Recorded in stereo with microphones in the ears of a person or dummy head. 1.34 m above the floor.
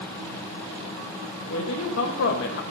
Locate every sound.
1.5 s a man speaking: 80° left, 1.8 m; by 2.6 s 65° left (ahead or behind), 1.4 m